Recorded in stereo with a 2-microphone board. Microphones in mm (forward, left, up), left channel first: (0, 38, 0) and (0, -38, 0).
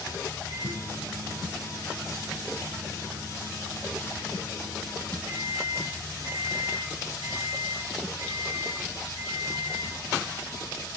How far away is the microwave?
About 4 m.